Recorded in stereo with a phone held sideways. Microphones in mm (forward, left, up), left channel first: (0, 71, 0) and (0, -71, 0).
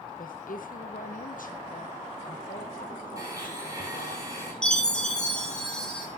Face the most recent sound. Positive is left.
turn(degrees=5)  # may be behind; listen again after turning